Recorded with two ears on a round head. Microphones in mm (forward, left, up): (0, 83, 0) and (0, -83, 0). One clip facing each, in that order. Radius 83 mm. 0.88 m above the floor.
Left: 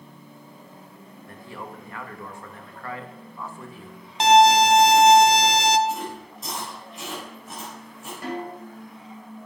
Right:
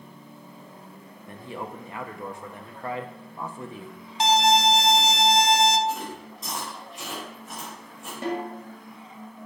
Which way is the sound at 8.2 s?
25° right (ahead or behind).